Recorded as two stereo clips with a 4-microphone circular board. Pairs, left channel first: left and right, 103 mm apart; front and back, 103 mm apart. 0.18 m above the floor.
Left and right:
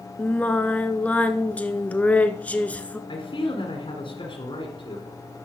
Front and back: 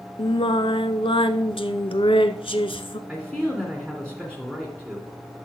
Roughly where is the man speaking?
Left.